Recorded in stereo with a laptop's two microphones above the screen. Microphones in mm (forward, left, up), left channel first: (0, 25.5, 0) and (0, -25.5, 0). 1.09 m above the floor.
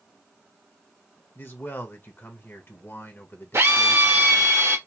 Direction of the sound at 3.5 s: 60° right (ahead or behind).